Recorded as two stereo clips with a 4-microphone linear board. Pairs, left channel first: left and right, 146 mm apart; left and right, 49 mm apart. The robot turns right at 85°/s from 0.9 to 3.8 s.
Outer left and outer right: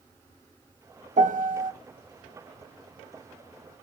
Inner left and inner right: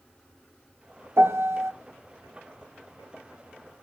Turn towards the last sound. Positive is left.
turn(degrees=105)